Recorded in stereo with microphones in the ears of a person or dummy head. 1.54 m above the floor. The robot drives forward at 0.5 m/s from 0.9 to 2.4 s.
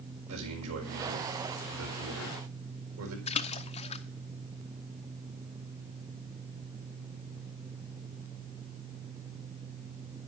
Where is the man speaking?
85° right, 5 m; by 3.2 s 80° right, 5 m.